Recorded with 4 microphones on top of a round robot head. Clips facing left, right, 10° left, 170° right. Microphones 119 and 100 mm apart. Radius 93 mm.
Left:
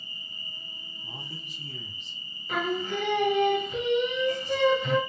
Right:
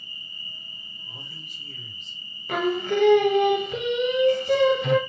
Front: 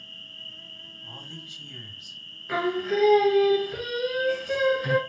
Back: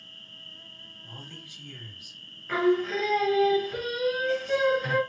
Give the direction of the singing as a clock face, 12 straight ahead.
2 o'clock.